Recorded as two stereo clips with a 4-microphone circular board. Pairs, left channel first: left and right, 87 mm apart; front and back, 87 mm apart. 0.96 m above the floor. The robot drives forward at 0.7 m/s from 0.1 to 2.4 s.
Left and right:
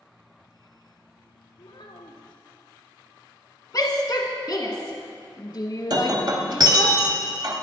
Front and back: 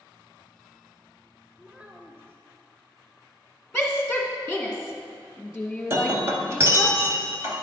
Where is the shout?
90° left, 1.2 m.